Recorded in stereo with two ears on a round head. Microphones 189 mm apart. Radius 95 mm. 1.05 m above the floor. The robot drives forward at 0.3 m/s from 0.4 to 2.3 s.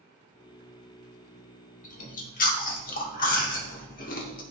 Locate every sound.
1.8 s chewing: 35° left (ahead or behind), 1.3 m; by 4.4 s 40° left (ahead or behind), 1.2 m